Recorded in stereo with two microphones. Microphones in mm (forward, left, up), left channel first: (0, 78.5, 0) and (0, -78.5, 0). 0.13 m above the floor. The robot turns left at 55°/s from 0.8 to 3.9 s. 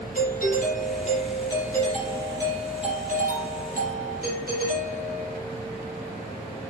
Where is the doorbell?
65° left, 4.5 m; by 5.4 s 105° right, 4.5 m.